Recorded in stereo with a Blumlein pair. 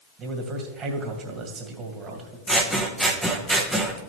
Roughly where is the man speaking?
Ahead right.